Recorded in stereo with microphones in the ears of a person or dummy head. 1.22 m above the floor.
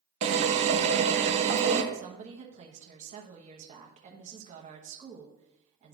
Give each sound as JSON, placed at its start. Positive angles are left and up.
{"t": 0.2, "sound": "a drill", "side_deg": -35, "distance_m": 0.7}
{"t": 1.9, "sound": "a woman speaking", "side_deg": -40, "distance_m": 1.0}